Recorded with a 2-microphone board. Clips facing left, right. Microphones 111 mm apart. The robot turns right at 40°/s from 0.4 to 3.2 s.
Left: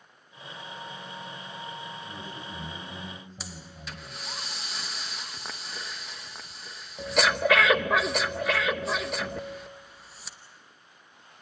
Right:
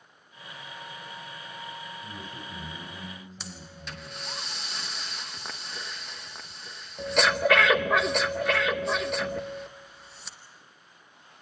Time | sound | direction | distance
2.0 | a man speaking | 15° right | 7 m
3.4 | breathing | centre (ahead or behind) | 1.0 m